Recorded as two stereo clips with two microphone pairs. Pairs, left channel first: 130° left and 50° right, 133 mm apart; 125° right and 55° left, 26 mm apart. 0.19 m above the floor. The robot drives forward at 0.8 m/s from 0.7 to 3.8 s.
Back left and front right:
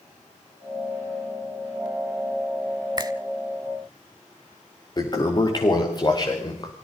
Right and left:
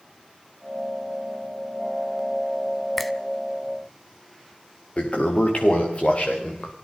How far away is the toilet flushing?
About 4.5 m.